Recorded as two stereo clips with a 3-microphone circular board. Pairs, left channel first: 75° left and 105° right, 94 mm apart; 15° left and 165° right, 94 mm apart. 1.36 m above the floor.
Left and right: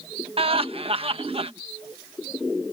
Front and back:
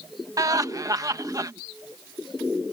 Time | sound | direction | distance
0.4 | laughter | 115° right | ?